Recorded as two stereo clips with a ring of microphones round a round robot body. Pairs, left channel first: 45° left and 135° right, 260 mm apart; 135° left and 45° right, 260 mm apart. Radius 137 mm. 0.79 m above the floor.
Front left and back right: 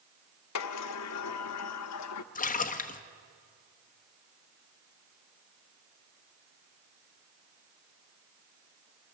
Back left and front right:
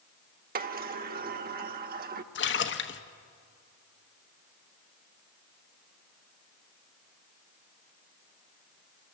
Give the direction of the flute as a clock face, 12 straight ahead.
No flute in this recording.